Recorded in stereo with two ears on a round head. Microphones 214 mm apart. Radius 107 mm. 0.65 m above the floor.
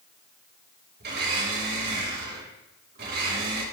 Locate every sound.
1.0 s a blender: 45° right (ahead or behind), 5 m